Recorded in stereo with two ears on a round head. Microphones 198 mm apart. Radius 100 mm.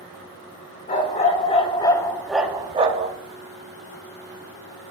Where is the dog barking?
35° left (ahead or behind), 2.0 m; by 3.1 s 35° right (ahead or behind), 1.2 m.